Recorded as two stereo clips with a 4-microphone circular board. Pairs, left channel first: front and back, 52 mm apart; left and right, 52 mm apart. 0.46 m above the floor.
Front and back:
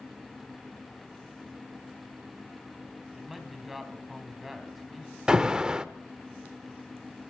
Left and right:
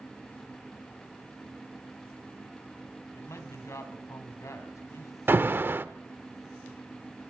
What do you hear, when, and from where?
3.1 s a man speaking: 95° left, 3 m
5.3 s an alarm: 110° right, 0.8 m